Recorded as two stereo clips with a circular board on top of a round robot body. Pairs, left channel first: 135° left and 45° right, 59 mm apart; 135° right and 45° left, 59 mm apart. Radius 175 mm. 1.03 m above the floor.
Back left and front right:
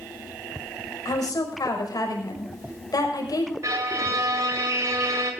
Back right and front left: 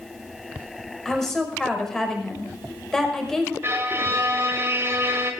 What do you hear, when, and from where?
1.1 s a woman speaking: 140° left, 5.5 m
3.6 s a violin: 10° right, 1.8 m